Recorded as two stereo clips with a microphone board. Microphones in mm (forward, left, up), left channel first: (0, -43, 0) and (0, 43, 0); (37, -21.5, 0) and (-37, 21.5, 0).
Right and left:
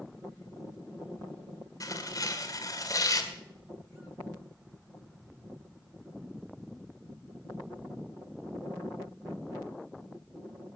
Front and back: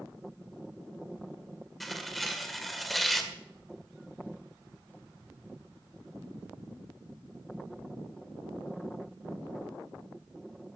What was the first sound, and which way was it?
Tearing paper, 120° right.